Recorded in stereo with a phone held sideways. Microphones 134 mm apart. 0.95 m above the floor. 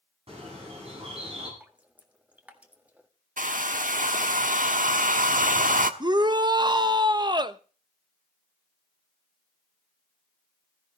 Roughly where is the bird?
Right.